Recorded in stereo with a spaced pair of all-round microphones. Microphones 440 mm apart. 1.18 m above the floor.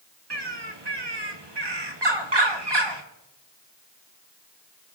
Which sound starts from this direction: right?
A bird, at 0.3 s.